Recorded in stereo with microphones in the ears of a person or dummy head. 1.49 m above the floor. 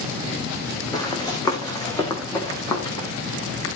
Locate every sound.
0.9 s running footsteps: 20° left (ahead or behind), 3.5 m; by 3.1 s 15° left (ahead or behind), 5 m